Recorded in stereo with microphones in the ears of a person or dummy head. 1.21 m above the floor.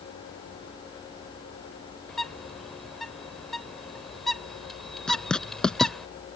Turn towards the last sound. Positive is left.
turn(degrees=0)  # may be behind; listen again after turning